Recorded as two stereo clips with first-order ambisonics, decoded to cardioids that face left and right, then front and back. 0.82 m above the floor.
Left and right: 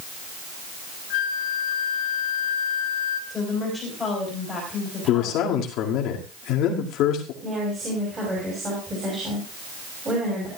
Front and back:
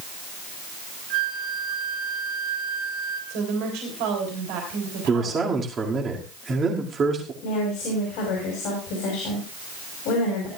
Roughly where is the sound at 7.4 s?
Ahead.